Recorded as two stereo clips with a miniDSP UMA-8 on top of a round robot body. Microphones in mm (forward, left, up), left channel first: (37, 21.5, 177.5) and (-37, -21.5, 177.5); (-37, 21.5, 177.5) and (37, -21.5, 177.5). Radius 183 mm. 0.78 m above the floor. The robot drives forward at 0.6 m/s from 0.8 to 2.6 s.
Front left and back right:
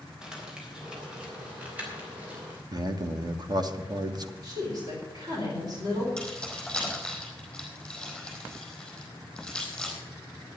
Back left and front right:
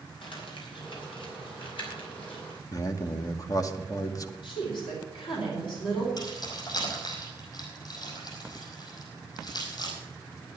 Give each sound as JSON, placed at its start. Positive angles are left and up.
{"t": 0.2, "sound": "crumpling", "azimuth_deg": 130, "distance_m": 3.5}
{"t": 2.7, "sound": "a man speaking", "azimuth_deg": -175, "distance_m": 1.5}
{"t": 4.4, "sound": "a woman speaking", "azimuth_deg": 165, "distance_m": 4.0}
{"t": 6.2, "sound": "keys jangling", "azimuth_deg": 110, "distance_m": 5.0}